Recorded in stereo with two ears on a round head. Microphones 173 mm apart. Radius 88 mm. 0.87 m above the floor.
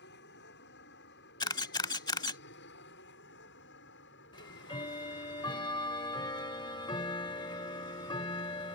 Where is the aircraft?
60° left (ahead or behind); by 8.8 s 65° left (ahead or behind).